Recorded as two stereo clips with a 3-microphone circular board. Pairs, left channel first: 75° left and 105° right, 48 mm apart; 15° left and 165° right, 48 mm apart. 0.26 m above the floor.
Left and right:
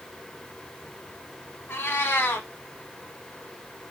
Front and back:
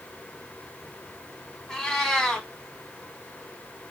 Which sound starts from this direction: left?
A cat meowing, at 1.7 s.